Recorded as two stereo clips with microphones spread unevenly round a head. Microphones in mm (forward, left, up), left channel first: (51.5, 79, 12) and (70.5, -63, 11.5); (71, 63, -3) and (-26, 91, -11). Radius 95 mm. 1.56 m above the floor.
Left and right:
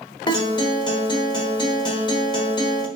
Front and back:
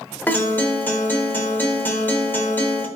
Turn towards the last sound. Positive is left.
turn(degrees=45)